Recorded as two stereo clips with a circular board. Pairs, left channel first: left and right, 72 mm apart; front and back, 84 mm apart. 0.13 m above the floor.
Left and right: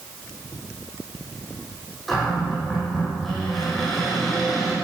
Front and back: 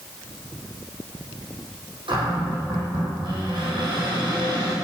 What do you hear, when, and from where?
2.1 s a cupboard door: straight behind, 6 m